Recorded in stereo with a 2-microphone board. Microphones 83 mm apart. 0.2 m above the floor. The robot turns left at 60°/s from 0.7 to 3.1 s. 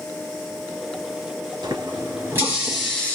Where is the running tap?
110° right, 2.5 m; by 3.2 s 165° left, 2.5 m.